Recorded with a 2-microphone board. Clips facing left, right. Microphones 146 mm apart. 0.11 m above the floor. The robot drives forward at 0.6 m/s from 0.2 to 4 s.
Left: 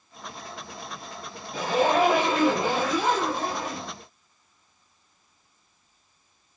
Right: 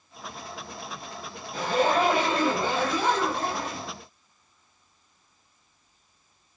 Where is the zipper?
15° left (ahead or behind), 2.5 m; by 3.9 s 10° left (ahead or behind), 3.5 m.